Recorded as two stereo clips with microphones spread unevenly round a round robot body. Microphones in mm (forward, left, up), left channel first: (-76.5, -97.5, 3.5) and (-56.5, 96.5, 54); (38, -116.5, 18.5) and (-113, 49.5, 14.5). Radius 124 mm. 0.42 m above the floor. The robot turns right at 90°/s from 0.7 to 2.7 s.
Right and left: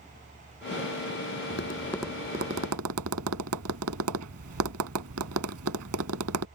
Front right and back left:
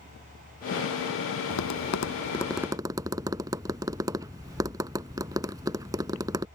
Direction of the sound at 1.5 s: 50° right.